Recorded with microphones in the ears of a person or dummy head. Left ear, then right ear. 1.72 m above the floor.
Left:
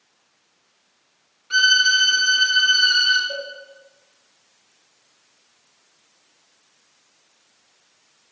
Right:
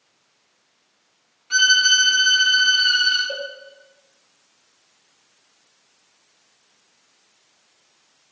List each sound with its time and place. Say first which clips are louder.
1.5 s a violin: even; 5° right (ahead or behind), 1.9 m
3.3 s a cowbell: right 1 dB; 30° right (ahead or behind), 0.7 m